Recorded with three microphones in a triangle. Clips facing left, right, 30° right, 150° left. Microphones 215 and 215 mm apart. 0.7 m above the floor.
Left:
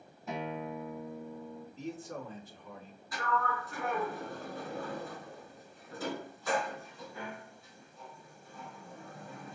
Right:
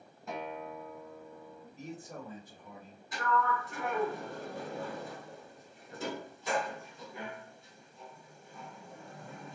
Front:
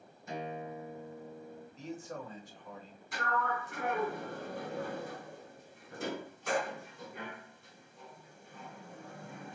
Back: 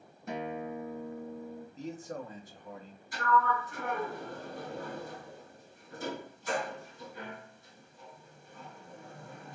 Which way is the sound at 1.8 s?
165° right.